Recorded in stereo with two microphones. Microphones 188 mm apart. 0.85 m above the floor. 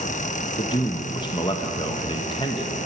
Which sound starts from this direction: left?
A man speaking, at 0.6 s.